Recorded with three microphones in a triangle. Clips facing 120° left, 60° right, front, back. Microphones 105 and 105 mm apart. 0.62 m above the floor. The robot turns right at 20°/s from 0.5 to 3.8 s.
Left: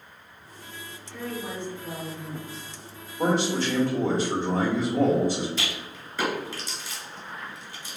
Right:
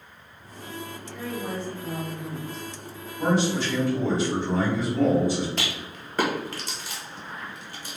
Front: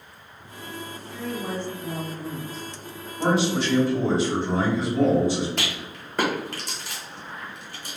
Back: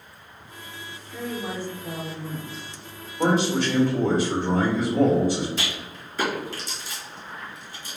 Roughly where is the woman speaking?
Behind right.